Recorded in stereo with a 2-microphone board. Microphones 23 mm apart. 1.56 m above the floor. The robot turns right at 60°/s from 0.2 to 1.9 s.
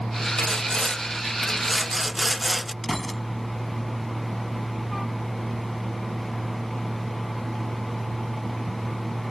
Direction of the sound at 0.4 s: 105° left.